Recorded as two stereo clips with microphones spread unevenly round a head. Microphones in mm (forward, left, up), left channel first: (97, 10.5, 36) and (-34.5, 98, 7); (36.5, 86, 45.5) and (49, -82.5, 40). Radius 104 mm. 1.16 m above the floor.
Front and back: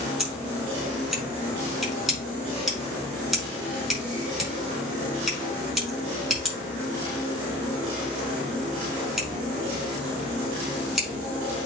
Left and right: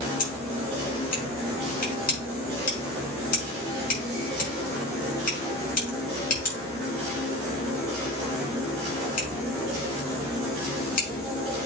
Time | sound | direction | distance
0.2 | scissors | 55° left | 5.5 m